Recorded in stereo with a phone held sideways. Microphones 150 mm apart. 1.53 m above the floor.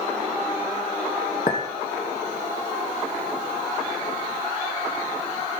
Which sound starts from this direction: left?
A clink, at 1.5 s.